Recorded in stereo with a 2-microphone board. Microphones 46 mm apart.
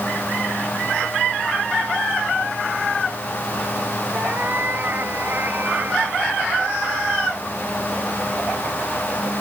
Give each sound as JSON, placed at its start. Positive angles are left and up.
{"t": 4.1, "sound": "a cat meowing", "side_deg": -45}